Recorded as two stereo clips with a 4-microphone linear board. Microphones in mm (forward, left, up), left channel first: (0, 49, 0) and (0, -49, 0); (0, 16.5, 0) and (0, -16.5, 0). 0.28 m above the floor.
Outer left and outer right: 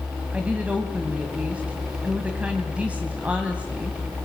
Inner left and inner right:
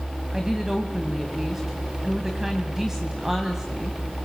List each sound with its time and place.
0.3 s a woman speaking: 15° right (ahead or behind), 2 m